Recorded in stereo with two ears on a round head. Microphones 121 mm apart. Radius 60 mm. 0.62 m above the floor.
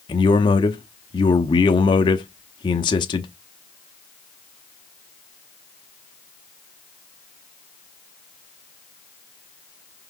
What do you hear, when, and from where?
0.1 s a man speaking: 35° left (ahead or behind), 0.8 m